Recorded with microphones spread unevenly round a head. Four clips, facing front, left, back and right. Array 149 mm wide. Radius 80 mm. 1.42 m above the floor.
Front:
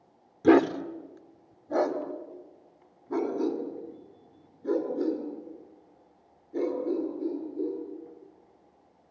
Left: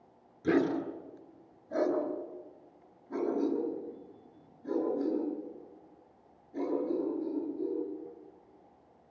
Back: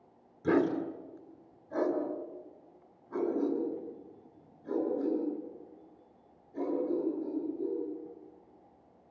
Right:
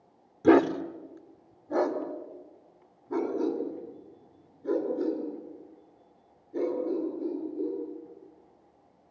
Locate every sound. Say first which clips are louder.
0.4 s a dog barking: right 7 dB, front 7 dB; 40° right, 1.7 m; by 7.8 s 15° right, 13 m